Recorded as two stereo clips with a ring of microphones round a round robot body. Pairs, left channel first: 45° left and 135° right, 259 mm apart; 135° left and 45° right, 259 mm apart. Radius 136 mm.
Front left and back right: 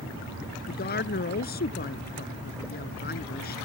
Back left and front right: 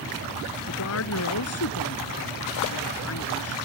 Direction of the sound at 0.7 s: 100° left.